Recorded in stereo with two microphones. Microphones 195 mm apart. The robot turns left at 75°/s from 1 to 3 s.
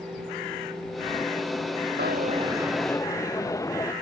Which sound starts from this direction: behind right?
A dropped coin, at 2.0 s.